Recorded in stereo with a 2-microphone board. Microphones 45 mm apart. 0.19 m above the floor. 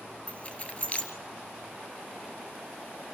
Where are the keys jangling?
35° left (ahead or behind), 2 m.